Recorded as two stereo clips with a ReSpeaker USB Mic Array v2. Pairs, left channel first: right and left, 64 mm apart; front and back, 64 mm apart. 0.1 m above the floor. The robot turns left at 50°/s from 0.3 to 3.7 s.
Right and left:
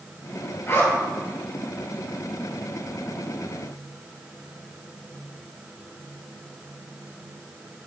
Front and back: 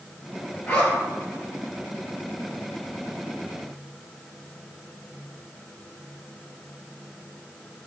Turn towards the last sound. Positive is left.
turn(degrees=155)